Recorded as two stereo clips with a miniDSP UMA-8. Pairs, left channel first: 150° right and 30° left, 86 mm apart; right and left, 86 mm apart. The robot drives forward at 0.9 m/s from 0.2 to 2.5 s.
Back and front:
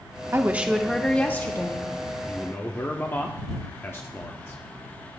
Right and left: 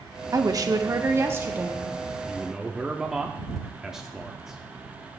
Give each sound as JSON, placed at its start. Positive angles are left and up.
{"t": 0.3, "sound": "a woman speaking", "azimuth_deg": 75, "distance_m": 0.8}
{"t": 2.3, "sound": "a man speaking", "azimuth_deg": 165, "distance_m": 0.6}